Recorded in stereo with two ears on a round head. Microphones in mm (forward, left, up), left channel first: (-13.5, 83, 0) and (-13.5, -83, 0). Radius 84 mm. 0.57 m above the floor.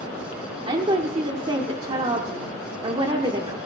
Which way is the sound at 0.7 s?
25° right (ahead or behind).